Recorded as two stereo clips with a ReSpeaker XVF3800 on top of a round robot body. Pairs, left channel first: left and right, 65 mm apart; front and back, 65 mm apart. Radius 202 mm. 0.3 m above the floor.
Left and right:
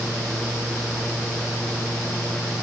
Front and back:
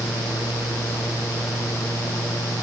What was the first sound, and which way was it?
Only background noise.